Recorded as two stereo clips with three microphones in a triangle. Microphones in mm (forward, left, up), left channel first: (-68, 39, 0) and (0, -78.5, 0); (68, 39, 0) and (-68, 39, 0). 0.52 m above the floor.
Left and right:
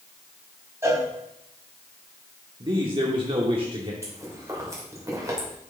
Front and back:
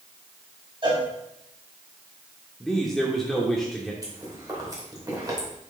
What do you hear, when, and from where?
0.8 s a cowbell: 130° right, 2.5 m
2.6 s a man speaking: 90° right, 1.0 m
4.0 s chewing: 125° right, 2.5 m